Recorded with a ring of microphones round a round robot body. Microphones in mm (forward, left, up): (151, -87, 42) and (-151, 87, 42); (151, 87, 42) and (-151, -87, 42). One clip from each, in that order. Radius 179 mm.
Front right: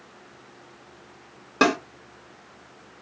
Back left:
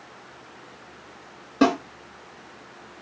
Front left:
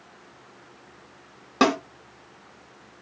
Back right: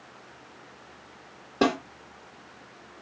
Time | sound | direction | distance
1.6 | a snare drum | 30° left | 1.4 m